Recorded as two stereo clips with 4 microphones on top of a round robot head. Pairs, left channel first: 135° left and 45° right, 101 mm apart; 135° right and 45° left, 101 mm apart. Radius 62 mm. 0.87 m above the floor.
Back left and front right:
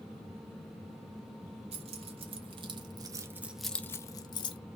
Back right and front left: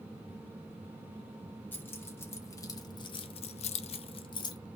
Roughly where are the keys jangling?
Ahead right.